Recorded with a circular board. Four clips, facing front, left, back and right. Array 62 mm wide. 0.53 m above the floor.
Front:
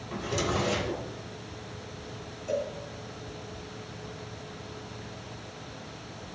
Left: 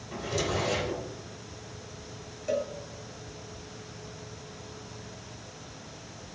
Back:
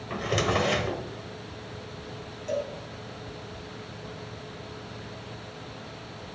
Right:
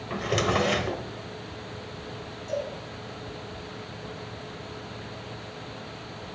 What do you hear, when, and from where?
0.1 s a drawer: 130° right, 0.9 m
2.5 s a cowbell: 110° left, 2 m